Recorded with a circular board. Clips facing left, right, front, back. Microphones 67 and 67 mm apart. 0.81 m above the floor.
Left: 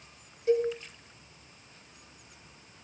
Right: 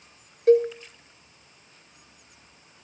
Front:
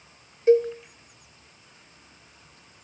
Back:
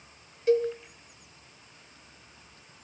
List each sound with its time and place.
0.5 s a cowbell: 60° right, 2.5 m